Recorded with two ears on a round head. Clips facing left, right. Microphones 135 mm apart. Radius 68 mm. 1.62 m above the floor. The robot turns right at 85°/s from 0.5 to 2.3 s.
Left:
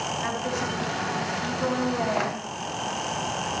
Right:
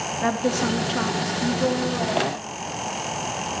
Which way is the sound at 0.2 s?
120° right.